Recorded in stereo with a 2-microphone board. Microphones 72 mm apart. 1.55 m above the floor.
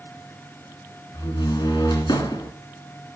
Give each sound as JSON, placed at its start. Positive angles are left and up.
{"t": 1.1, "sound": "a door slam", "side_deg": 70, "distance_m": 3.0}